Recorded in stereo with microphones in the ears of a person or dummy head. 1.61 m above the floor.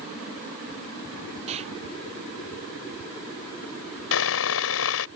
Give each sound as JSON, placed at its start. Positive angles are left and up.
{"t": 1.5, "sound": "an explosion", "side_deg": -35}
{"t": 4.1, "sound": "sawing", "side_deg": 70}